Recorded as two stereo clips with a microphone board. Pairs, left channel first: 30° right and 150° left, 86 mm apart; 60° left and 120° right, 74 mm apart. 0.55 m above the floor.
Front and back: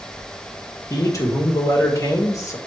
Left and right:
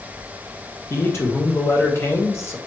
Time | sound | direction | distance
0.9 | a man speaking | 10° left | 1.8 m